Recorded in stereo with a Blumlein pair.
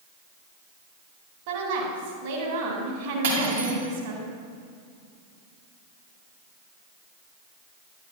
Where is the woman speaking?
50° right, 2.5 m.